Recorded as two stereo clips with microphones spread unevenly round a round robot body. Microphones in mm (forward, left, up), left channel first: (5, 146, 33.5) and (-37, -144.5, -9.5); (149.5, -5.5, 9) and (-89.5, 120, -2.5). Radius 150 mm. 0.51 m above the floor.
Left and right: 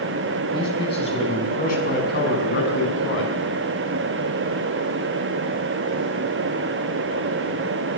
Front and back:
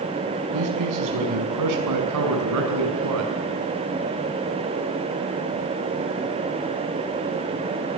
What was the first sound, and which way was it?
A man speaking, 160° left.